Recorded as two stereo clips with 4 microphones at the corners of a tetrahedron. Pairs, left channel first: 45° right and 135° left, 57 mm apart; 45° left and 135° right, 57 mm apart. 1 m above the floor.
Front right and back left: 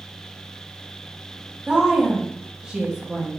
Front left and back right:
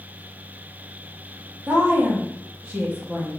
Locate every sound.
1.7 s a woman speaking: 170° right, 0.9 m